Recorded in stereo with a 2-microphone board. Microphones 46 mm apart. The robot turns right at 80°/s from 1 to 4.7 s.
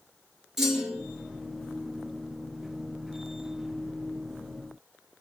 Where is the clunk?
5° right (ahead or behind), 4 m.